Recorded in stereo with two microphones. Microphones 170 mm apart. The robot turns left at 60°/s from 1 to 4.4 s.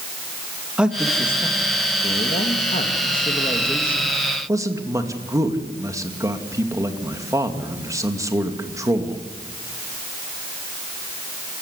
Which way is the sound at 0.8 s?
175° right.